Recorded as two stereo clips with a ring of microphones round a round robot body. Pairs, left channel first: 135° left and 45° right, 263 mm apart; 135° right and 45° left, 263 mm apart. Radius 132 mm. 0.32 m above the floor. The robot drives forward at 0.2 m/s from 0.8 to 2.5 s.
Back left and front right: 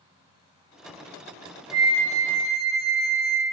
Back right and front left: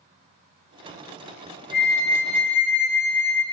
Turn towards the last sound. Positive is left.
turn(degrees=-90)